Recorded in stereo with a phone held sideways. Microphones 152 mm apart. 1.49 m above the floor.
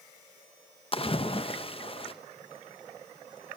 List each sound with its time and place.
0.9 s a splash: 35° left (ahead or behind), 0.9 m